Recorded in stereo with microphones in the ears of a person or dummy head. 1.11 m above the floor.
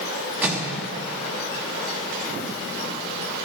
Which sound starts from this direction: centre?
A microwave, at 0.4 s.